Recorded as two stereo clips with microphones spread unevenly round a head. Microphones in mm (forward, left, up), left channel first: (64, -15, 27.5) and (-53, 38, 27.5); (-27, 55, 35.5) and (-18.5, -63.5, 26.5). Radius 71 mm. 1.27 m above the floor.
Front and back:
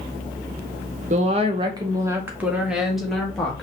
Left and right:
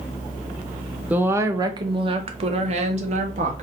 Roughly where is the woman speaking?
Behind.